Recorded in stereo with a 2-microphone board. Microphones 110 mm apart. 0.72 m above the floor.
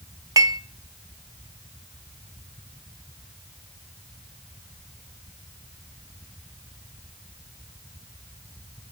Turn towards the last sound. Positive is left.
turn(degrees=-30)  # may be behind; listen again after turning